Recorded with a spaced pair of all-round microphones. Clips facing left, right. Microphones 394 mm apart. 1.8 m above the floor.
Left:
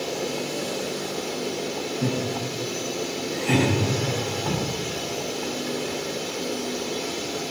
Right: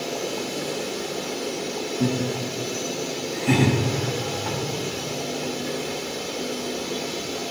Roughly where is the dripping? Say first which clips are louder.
Even; left.